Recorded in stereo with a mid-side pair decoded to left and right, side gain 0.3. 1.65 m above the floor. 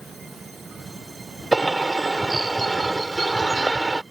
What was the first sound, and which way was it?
A bird, 25° right.